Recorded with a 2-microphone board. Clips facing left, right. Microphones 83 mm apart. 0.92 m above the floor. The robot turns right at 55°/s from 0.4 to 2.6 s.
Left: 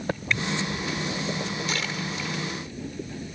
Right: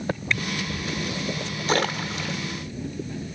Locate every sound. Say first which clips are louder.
1.7 s a splash: right 6 dB; 50° right (ahead or behind), 1.0 m; by 2.4 s 70° right (ahead or behind), 1.0 m